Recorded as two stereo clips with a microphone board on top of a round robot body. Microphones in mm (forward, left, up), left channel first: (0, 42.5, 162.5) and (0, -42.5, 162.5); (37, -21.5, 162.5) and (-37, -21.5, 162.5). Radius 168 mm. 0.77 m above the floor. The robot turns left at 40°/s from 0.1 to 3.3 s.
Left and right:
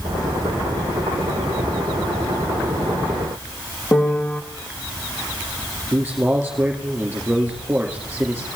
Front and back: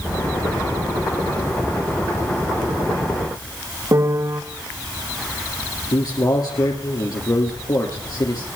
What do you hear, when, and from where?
3.9 s a piano: 160° left, 1.0 m
5.9 s a man speaking: 20° right, 2.5 m